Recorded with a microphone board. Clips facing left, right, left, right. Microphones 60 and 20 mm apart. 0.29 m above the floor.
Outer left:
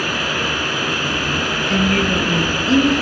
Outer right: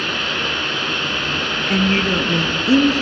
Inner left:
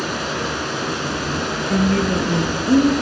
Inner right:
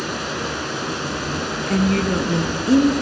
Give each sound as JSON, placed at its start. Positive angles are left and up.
{"t": 0.0, "sound": "running water", "side_deg": 5, "distance_m": 2.5}
{"t": 1.7, "sound": "a woman speaking", "side_deg": -25, "distance_m": 3.5}